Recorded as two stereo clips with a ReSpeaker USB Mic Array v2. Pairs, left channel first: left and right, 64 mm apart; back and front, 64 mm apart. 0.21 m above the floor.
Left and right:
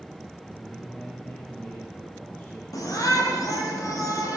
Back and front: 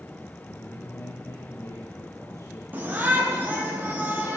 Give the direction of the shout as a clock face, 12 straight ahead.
10 o'clock.